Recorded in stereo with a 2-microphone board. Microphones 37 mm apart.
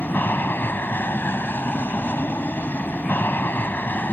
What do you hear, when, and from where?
0.0 s an aircraft: 70° left (ahead or behind); by 4.1 s 60° left (ahead or behind)